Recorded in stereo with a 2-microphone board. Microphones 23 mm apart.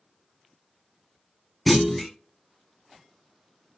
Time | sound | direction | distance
1.7 | a clunk | 5° left (ahead or behind) | 0.5 m